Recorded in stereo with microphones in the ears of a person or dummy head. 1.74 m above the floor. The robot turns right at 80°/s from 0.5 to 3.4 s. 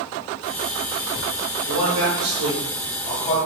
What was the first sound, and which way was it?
A man speaking, 105° right.